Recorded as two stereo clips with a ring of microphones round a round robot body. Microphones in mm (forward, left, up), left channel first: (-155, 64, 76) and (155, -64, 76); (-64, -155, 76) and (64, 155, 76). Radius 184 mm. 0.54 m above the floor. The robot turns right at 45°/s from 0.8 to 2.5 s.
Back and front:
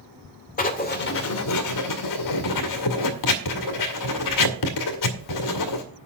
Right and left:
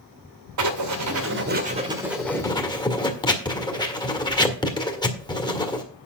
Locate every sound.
0.6 s writing: 95° left, 1.6 m; by 5.8 s 170° left, 1.6 m